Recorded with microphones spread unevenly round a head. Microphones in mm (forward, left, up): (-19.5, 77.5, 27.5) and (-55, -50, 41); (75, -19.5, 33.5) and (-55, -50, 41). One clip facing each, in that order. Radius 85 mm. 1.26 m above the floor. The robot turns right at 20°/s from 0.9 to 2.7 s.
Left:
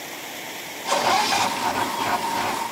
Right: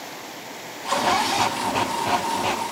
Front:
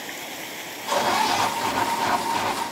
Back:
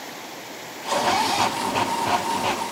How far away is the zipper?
About 1.8 m.